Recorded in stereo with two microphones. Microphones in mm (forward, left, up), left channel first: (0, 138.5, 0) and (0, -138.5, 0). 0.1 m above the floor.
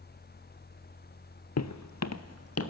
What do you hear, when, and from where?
1.6 s footsteps: 65° left (ahead or behind), 0.6 m; by 2.7 s 55° left (ahead or behind), 1.6 m